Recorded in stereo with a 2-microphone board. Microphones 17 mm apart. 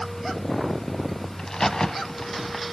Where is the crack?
35° left (ahead or behind), 1.2 m.